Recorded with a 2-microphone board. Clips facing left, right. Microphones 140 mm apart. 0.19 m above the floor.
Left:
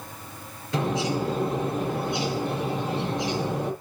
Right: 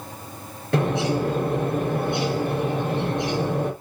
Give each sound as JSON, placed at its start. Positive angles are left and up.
{"t": 0.7, "sound": "a bird", "side_deg": -65, "distance_m": 4.0}